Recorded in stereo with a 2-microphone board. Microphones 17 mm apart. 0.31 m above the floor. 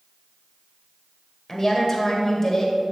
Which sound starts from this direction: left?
A woman speaking, at 1.5 s.